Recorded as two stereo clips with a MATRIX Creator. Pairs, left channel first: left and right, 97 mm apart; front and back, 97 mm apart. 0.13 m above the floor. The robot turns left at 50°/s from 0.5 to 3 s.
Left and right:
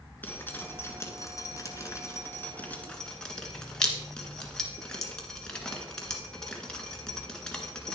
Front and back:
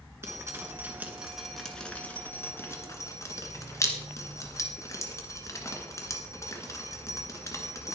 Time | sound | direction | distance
0.2 | dripping | 140° left | 1.7 m